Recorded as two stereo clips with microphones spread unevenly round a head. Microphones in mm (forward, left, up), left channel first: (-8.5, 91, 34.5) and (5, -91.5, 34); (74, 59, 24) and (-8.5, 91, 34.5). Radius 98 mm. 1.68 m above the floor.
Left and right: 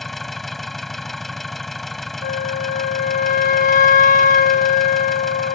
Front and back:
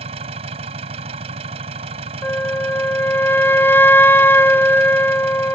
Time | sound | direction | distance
0.0 | an engine running | 175° right | ?
2.2 | a flute | 45° left | ?